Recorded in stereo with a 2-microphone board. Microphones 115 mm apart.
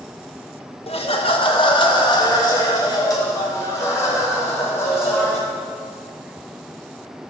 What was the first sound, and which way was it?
Laughter, 60° left (ahead or behind).